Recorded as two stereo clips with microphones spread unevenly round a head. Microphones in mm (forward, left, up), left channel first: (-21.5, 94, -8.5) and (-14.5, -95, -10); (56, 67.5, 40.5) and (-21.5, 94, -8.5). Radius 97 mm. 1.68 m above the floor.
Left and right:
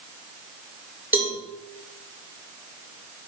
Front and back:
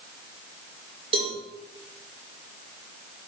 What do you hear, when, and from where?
1.1 s a cowbell: 170° right, 6.5 m